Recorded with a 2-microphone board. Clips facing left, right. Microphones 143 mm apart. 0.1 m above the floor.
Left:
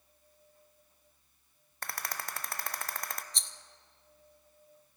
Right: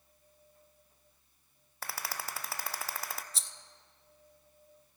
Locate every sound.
1.8 s a rattle: 5° right (ahead or behind), 0.7 m
3.3 s a rattle: 5° right (ahead or behind), 0.6 m